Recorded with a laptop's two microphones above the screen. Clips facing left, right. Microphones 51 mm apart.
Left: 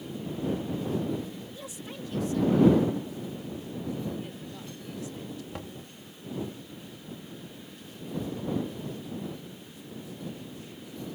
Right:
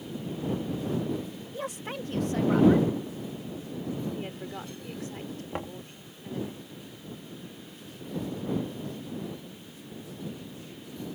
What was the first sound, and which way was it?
A woman speaking, 55° right (ahead or behind).